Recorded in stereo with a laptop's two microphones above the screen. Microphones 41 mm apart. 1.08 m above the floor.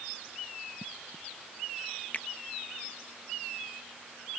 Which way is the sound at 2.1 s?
45° left (ahead or behind).